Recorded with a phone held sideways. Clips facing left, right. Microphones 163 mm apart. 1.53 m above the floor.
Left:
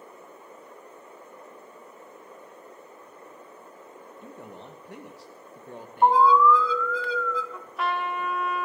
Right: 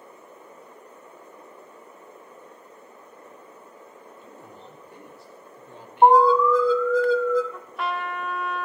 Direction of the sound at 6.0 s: 45° right (ahead or behind).